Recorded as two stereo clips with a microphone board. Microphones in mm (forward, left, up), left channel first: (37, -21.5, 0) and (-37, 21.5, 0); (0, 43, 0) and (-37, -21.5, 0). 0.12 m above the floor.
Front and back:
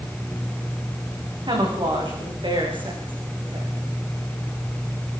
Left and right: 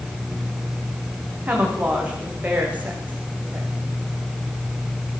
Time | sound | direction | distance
1.5 | a woman speaking | 170° left | 9 m